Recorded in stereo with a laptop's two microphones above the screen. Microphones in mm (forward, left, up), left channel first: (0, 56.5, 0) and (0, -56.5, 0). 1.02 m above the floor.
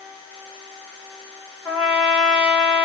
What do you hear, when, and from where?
1.6 s a trumpet: 5° right (ahead or behind), 2.5 m